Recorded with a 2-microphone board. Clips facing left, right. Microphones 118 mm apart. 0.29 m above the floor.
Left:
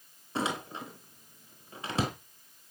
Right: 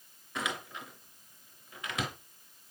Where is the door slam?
30° left (ahead or behind), 3.5 m.